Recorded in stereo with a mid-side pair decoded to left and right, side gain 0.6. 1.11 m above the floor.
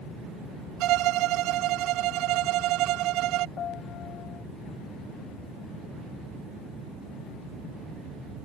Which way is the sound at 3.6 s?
45° left.